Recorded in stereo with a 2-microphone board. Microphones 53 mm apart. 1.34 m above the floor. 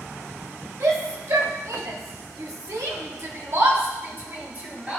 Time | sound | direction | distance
0.8 | a shout | 65° right (ahead or behind) | 1.7 m